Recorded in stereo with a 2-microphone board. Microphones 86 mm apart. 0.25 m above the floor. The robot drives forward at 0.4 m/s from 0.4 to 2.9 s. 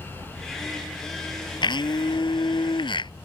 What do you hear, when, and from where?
1.6 s a blender: 60° left (ahead or behind); by 3.1 s 70° left (ahead or behind)